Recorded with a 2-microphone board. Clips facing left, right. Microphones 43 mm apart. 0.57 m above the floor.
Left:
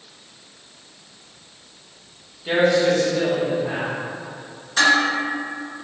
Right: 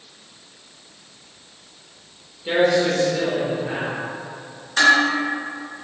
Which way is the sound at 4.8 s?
25° right (ahead or behind).